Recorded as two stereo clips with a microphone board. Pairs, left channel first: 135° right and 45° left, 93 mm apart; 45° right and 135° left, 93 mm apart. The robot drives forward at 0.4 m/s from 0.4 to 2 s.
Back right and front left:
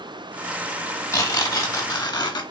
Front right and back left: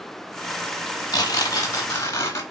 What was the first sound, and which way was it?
Tearing paper, 85° right.